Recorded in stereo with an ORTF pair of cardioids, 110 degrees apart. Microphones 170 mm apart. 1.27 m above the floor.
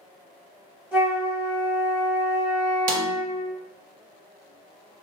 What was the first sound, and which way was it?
A flute, 5° right.